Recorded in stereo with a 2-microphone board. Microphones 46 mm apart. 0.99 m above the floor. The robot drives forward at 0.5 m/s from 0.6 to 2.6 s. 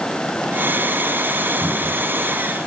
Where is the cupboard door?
25° left (ahead or behind), 4.5 m.